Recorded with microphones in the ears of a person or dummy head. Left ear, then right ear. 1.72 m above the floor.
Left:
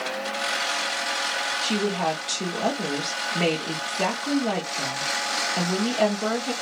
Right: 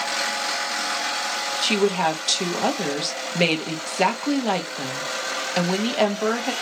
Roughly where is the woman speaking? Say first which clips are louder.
Right 4 dB; right.